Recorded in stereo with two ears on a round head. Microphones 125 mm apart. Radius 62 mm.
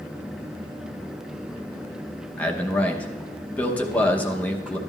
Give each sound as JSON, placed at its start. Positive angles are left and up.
{"t": 2.4, "sound": "a man speaking", "side_deg": 10, "distance_m": 0.9}